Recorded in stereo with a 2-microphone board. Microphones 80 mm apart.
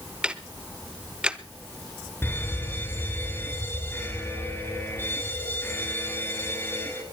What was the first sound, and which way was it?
Ticking, 10° right (ahead or behind).